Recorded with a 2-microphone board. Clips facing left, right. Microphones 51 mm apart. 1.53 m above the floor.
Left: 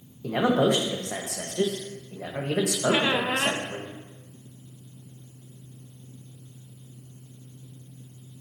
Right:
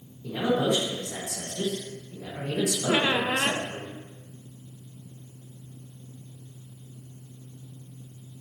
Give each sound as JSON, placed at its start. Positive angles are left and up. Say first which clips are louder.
{"t": 0.2, "sound": "a man speaking", "louder": "left 3 dB", "side_deg": 65, "distance_m": 1.7}
{"t": 2.9, "sound": "a squeak", "louder": "even", "side_deg": 5, "distance_m": 0.6}